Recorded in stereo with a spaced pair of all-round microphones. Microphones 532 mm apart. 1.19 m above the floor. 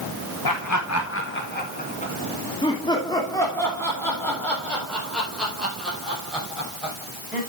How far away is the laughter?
About 1.1 m.